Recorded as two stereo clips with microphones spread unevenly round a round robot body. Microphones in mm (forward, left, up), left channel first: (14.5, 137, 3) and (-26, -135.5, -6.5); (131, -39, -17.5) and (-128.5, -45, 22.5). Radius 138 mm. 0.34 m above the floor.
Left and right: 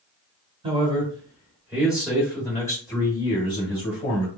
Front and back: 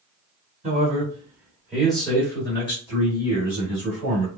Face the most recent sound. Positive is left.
turn(degrees=20)